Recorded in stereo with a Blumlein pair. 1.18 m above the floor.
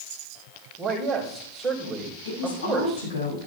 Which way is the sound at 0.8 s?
15° right.